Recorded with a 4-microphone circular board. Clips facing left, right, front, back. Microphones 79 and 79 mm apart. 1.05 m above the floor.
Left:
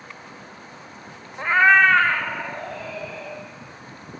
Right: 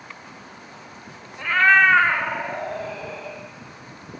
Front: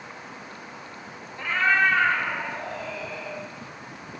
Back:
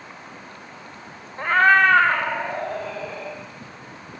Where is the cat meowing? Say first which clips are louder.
Left 1 dB, back 6 dB; 135° left, 0.6 m; by 3.4 s 135° right, 1.8 m.